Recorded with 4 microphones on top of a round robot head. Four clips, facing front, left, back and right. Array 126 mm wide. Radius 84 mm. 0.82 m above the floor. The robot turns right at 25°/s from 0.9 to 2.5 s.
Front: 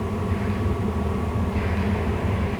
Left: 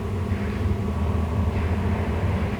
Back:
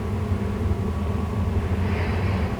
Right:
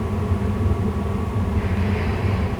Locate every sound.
Only background noise.